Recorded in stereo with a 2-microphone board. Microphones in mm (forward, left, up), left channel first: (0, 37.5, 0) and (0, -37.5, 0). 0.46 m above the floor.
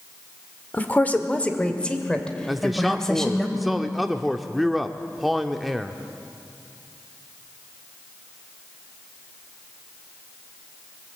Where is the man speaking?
Centre (ahead or behind), 0.7 m.